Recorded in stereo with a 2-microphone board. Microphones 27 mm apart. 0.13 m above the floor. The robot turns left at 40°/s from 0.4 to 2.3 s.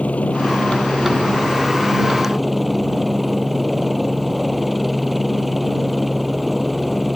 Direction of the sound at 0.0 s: 75° left.